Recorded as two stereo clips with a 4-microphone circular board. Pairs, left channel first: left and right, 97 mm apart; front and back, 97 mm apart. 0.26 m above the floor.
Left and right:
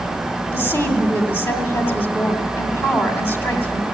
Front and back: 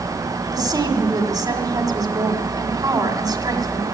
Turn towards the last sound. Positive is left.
turn(degrees=150)